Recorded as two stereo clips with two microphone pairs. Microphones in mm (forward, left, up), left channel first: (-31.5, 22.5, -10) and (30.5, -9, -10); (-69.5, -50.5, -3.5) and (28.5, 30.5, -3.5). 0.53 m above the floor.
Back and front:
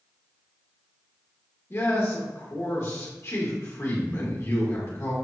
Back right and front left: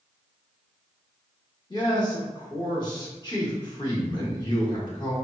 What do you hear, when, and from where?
1.7 s a man speaking: straight behind, 1.6 m